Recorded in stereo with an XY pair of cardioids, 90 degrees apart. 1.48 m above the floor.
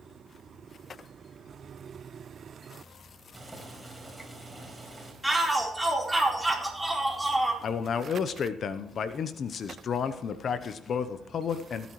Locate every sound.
3.3 s boiling: 15° right, 4.5 m
5.2 s a shout: 5° right, 4 m
7.6 s a man speaking: 60° left, 0.8 m